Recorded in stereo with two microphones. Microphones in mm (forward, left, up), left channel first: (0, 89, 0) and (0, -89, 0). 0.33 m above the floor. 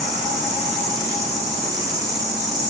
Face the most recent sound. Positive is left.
turn(degrees=-20)  # may be behind; listen again after turning